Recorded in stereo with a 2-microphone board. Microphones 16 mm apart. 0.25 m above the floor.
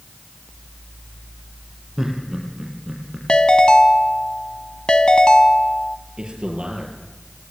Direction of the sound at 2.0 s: 30° right (ahead or behind).